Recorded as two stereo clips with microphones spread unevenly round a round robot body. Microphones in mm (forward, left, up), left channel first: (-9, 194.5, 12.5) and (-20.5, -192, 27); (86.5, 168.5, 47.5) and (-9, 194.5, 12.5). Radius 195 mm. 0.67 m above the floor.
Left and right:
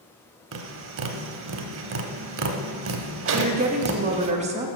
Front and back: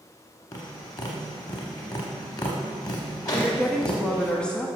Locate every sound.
0.5 s tapping: 45° right, 0.6 m
3.3 s a woman speaking: 135° right, 0.9 m